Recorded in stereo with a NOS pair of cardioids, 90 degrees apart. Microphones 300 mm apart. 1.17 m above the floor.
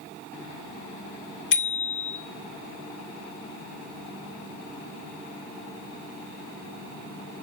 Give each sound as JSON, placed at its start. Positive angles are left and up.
{"t": 1.5, "sound": "a bicycle bell", "azimuth_deg": 40, "distance_m": 2.5}